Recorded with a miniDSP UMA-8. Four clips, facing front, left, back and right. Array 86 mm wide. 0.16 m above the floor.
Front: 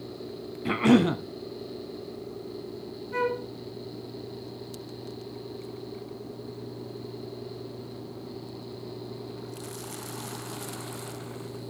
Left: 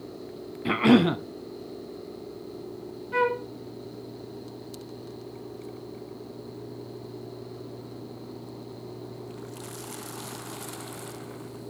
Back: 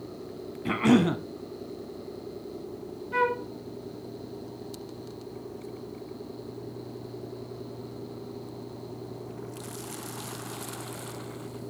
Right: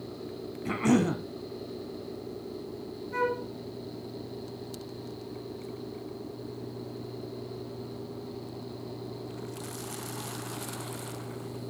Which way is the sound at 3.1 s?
125° left.